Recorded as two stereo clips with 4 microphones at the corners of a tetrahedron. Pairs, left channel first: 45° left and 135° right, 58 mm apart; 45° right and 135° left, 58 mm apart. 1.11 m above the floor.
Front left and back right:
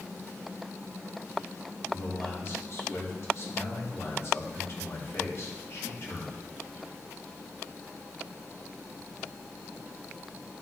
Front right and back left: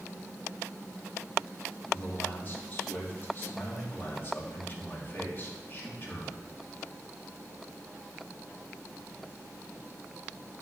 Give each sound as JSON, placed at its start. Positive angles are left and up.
{"t": 1.9, "sound": "a man speaking", "azimuth_deg": 10, "distance_m": 2.5}